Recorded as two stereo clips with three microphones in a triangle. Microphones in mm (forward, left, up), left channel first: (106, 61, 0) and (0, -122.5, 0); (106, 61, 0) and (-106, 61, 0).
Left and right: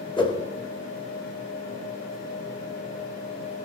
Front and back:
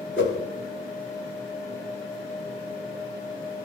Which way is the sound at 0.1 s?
5° right.